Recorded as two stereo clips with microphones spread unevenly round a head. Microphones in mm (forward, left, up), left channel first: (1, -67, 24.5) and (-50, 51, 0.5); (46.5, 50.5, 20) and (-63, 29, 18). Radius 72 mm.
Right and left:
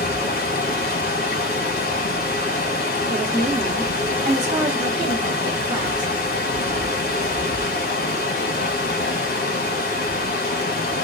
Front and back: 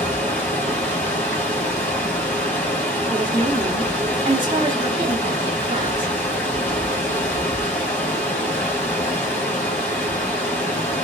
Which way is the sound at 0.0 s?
65° right.